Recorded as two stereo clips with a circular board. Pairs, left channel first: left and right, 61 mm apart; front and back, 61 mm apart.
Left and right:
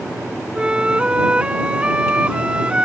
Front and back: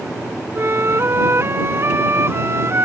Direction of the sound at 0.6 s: 155° right.